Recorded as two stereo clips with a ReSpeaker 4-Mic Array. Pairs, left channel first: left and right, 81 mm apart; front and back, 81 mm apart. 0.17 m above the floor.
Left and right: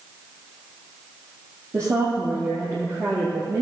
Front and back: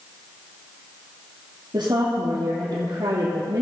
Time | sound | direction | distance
1.7 | a woman speaking | 140° right | 4 m